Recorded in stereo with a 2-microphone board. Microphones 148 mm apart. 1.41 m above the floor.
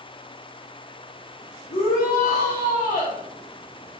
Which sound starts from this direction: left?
A shout, at 1.7 s.